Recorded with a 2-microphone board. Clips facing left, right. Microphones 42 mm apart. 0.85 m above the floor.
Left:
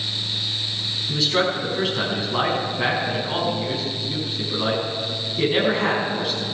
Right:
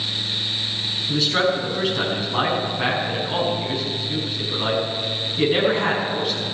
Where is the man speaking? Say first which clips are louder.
Right 1 dB; 5° right (ahead or behind), 6 m.